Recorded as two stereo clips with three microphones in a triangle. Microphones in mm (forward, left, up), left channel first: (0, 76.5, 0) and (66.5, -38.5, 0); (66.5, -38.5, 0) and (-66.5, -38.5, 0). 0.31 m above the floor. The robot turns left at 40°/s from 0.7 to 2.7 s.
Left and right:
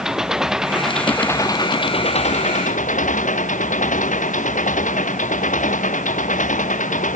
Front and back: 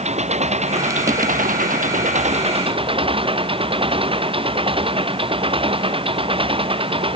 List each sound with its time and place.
0.0 s an engine running: 145° right; by 7.2 s 135° left